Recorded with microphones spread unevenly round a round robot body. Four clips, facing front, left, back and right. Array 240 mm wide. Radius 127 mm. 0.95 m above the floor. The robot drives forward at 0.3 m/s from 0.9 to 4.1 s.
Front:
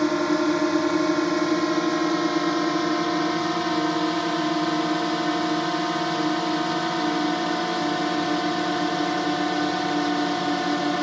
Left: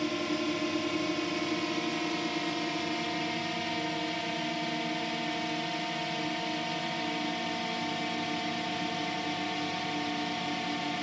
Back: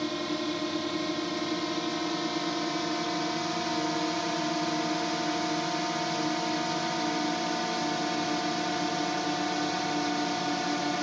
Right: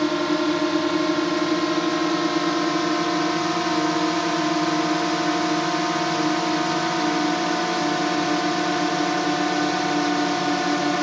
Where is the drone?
45° right; by 11.0 s 60° right.